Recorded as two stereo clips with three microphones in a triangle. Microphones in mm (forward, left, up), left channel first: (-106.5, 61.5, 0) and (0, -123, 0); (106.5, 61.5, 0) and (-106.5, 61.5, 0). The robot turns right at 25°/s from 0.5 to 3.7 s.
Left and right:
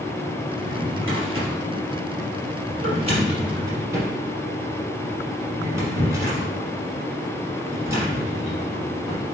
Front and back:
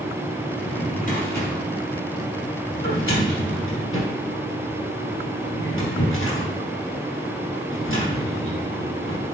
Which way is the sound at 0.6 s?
60° right.